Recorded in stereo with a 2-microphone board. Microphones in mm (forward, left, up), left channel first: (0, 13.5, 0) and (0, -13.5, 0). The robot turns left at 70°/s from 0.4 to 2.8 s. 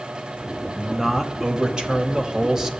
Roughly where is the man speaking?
Ahead.